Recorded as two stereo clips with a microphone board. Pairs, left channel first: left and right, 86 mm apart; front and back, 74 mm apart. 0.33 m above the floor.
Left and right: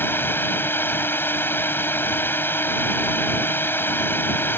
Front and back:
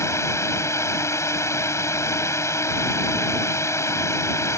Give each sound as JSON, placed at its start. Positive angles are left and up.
{"t": 0.0, "sound": "a drone", "azimuth_deg": 35}